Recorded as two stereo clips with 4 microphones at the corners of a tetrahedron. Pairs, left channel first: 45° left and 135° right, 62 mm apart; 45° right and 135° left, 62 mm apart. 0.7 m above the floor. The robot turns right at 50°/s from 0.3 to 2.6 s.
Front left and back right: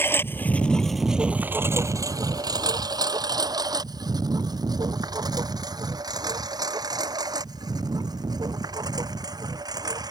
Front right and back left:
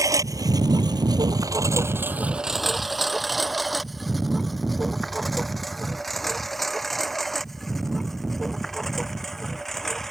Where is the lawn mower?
100° left; by 10.1 s 130° right.